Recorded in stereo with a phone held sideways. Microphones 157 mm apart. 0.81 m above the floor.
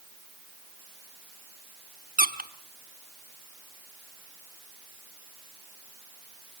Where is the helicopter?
No helicopter in this recording.